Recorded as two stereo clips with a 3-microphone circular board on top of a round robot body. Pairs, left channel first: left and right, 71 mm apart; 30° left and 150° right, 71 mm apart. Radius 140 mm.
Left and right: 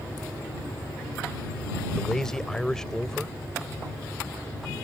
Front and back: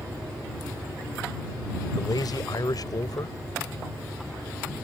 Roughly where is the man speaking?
Ahead.